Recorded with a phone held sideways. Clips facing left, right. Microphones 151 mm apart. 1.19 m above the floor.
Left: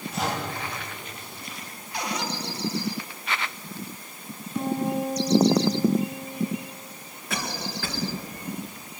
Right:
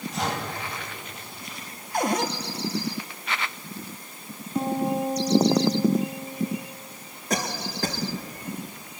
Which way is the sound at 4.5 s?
35° right (ahead or behind).